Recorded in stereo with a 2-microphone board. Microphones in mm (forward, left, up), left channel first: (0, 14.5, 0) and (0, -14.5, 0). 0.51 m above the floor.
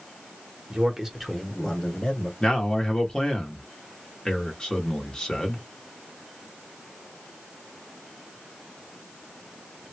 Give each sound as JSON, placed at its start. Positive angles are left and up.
{"t": 0.7, "sound": "a man speaking", "side_deg": -35, "distance_m": 0.9}
{"t": 2.4, "sound": "a man speaking", "side_deg": 30, "distance_m": 1.1}